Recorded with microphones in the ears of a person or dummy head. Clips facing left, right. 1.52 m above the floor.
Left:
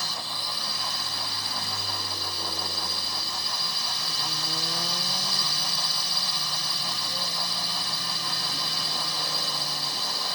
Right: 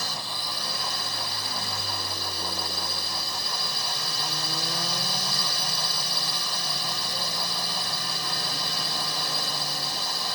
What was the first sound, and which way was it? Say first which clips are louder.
A drone: right 1 dB; 50° right (ahead or behind).